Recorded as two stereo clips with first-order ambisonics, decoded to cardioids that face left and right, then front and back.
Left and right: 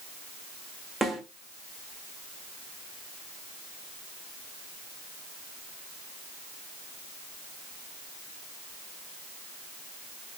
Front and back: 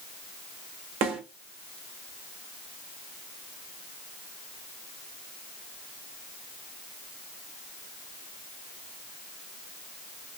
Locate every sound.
1.0 s a snare drum: straight behind, 1.4 m